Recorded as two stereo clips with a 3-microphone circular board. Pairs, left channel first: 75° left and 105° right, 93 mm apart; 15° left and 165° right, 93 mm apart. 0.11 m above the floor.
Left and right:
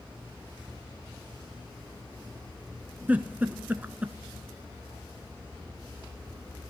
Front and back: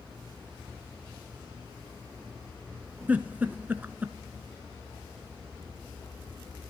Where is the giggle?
135° right, 0.5 m.